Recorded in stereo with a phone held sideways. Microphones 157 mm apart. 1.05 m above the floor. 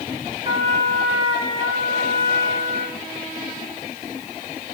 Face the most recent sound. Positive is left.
turn(degrees=-30)  # may be behind; listen again after turning